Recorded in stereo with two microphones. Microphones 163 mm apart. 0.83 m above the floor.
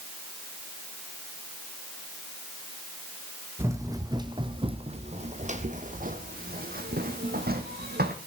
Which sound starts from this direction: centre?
Running footsteps, at 3.6 s.